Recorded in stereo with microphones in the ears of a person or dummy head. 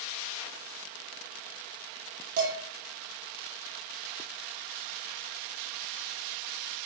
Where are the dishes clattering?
50° right (ahead or behind), 1.8 m.